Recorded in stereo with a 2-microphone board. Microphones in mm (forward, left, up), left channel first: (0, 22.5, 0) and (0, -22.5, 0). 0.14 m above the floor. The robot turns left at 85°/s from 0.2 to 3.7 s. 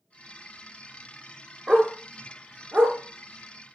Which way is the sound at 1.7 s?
10° right (ahead or behind).